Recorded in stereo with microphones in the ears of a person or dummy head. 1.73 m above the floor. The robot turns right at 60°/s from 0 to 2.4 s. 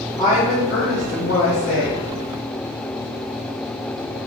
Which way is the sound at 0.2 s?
20° left.